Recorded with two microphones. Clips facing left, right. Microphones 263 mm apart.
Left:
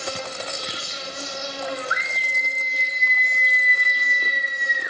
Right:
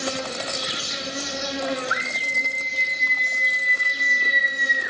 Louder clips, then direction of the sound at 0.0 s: Right 3 dB; 75° right (ahead or behind).